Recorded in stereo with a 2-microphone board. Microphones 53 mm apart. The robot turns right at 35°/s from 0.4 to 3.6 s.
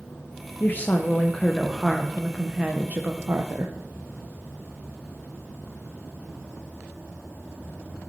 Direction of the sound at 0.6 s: 140° left.